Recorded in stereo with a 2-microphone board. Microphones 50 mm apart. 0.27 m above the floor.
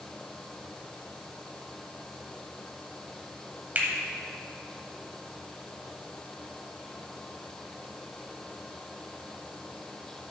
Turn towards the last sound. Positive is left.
turn(degrees=-35)  # may be behind; listen again after turning